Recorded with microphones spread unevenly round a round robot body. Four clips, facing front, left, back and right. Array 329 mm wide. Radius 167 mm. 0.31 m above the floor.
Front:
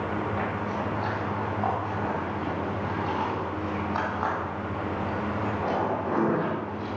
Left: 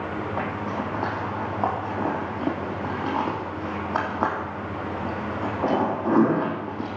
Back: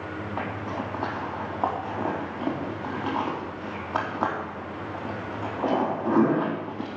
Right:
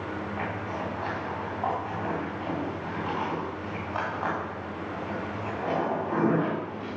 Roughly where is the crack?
I don't hear a crack.